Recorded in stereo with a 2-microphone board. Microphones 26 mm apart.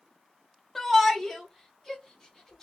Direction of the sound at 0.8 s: 5° left (ahead or behind).